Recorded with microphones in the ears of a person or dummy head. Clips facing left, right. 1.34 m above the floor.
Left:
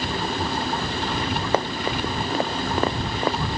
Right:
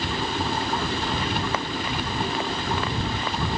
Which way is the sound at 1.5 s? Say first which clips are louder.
Left 4 dB; 25° left (ahead or behind).